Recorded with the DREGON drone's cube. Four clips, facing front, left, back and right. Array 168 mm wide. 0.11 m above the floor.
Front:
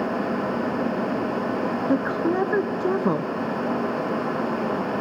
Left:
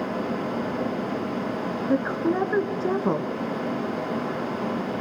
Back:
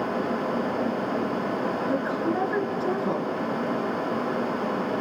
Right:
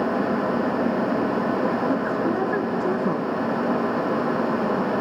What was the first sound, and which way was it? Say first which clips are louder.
A woman speaking: right 1 dB, front 6 dB; 20° left.